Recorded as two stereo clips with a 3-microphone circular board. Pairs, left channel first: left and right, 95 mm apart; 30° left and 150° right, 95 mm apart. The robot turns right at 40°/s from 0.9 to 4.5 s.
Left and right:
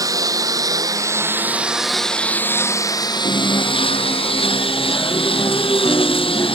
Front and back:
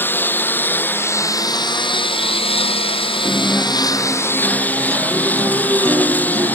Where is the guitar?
95° left; by 6.6 s 145° left.